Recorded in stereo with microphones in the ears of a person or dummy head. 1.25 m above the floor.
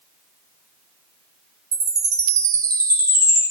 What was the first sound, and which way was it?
A chime, 20° right (ahead or behind).